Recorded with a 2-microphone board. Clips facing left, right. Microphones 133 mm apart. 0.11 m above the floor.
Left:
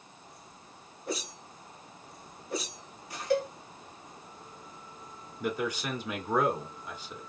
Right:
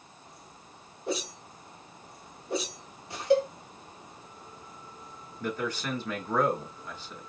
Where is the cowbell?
25° right (ahead or behind), 1.6 m.